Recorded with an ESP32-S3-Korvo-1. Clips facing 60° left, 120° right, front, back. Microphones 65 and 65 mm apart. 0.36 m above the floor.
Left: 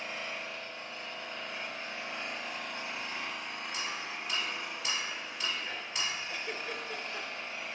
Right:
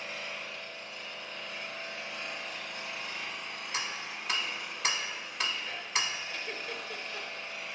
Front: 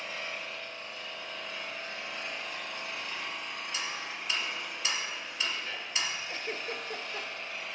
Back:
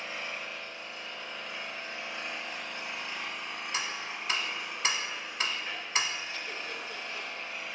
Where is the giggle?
15° right, 0.7 m.